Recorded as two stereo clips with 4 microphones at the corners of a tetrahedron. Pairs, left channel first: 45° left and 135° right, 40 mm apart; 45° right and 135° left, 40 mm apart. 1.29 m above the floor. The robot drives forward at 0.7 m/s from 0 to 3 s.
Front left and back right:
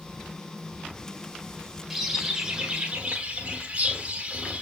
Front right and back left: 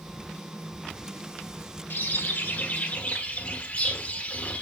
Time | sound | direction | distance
1.9 | a bird | 55° right | 1.5 m